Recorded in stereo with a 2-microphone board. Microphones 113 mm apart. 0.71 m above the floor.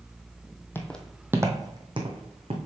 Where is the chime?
I don't hear a chime.